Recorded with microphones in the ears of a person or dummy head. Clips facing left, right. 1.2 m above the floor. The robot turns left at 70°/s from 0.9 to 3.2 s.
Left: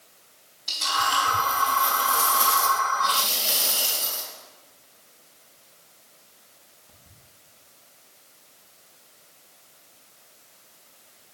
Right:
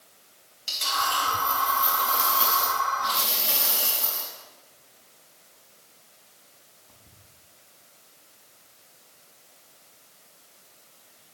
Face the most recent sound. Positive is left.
turn(degrees=55)  # may be behind; listen again after turning